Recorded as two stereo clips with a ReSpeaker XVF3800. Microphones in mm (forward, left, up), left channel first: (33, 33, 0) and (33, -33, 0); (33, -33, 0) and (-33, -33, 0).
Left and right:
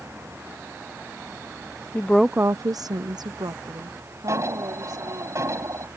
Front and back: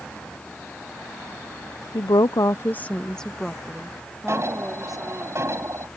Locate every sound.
1.9 s a woman speaking: 35° left; by 5.3 s 95° right
4.3 s an alarm: 135° right